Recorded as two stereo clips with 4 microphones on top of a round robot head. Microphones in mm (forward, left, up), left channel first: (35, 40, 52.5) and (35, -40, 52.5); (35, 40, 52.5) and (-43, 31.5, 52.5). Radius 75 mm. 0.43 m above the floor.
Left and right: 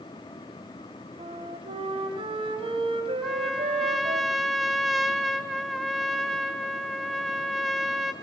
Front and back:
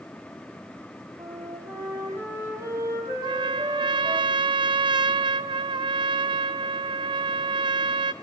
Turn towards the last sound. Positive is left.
turn(degrees=180)